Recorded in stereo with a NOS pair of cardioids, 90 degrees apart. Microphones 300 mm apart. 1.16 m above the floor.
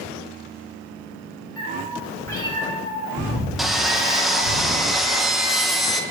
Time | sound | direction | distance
1.6 | a cat meowing | 5° right | 1.9 m
3.6 | sawing | straight ahead | 0.7 m